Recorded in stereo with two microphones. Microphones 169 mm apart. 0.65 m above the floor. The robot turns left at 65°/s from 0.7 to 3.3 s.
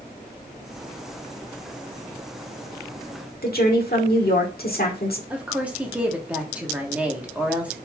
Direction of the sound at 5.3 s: 10° right (ahead or behind).